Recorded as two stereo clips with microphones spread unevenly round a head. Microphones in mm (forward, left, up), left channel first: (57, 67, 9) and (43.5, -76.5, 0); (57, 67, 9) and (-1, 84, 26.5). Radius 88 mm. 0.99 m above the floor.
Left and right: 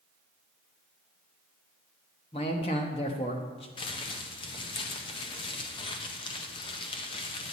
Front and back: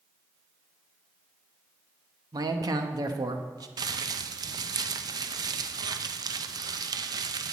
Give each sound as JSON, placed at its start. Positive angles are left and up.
{"t": 2.3, "sound": "a man speaking", "azimuth_deg": 145, "distance_m": 1.0}
{"t": 3.8, "sound": "crumpling", "azimuth_deg": 150, "distance_m": 0.5}